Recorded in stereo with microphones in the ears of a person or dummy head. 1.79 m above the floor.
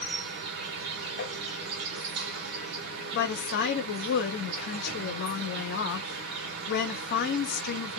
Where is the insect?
55° right (ahead or behind), 1.3 m.